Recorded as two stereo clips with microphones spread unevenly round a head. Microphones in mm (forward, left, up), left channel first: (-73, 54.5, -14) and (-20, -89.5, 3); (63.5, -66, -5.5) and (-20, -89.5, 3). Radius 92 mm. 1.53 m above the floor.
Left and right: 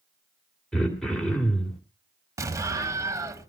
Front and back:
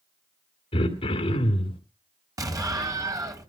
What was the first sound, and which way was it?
Throat clearing, 20° left.